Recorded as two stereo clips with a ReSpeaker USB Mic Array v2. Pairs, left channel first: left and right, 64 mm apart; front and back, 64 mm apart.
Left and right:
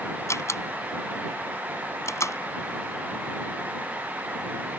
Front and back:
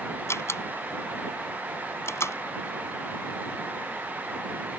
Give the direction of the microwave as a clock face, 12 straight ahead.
I don't hear a microwave.